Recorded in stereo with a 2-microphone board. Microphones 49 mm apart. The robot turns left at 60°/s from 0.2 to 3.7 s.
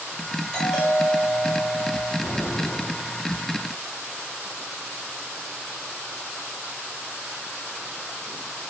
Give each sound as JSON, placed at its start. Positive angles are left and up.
{"t": 0.5, "sound": "a doorbell", "side_deg": 10, "distance_m": 2.0}
{"t": 2.2, "sound": "an explosion", "azimuth_deg": -5, "distance_m": 1.8}